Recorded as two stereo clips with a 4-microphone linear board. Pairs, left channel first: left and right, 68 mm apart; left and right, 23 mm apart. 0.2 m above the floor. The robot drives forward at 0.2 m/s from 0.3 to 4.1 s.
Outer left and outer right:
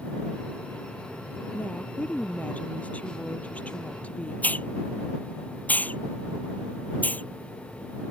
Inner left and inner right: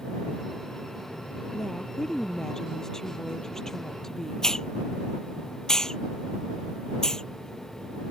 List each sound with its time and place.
1.5 s a woman speaking: 20° left (ahead or behind)
4.4 s a hiss: 25° left (ahead or behind)